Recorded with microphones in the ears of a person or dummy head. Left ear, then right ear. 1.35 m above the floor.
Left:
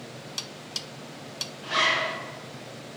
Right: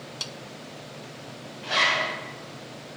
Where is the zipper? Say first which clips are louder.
Right 1 dB; 20° right (ahead or behind), 3.5 m.